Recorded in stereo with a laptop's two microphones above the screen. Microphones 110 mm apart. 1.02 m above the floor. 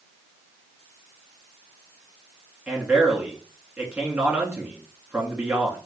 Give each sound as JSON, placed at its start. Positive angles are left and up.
{"t": 2.7, "sound": "a man speaking", "side_deg": -10, "distance_m": 1.8}